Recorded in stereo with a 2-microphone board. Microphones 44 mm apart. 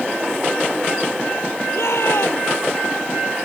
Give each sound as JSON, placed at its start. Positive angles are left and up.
{"t": 1.7, "sound": "a shout", "side_deg": 70}